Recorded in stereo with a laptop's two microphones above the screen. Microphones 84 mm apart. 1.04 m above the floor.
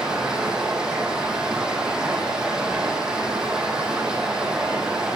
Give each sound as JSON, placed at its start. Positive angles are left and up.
{"t": 0.0, "sound": "running water", "side_deg": -10, "distance_m": 6.0}